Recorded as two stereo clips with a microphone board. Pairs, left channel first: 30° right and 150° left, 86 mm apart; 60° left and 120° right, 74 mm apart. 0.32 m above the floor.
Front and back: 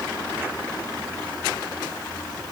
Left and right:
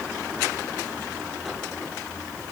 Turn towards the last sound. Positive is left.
No sound to turn to.